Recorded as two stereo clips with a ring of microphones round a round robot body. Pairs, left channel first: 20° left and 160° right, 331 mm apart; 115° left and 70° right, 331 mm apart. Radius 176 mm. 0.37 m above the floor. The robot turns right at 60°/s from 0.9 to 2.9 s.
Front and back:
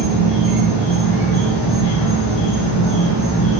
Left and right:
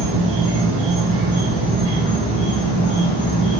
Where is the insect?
45° right, 0.7 m; by 3.6 s 75° left, 0.7 m.